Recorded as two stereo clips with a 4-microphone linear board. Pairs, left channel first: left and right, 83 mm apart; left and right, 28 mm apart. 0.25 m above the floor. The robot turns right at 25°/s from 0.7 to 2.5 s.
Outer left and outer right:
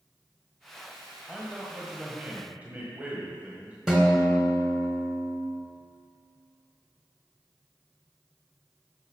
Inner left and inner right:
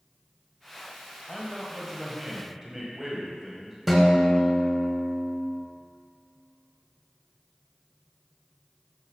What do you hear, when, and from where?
1.3 s a man speaking: 170° right, 1.6 m; by 3.8 s 140° right, 1.6 m
3.9 s a guitar: 5° right (ahead or behind), 1.9 m